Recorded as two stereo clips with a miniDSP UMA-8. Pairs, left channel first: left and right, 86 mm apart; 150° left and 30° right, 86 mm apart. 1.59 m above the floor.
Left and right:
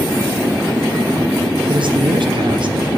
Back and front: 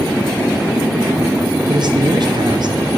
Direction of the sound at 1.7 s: 65° right.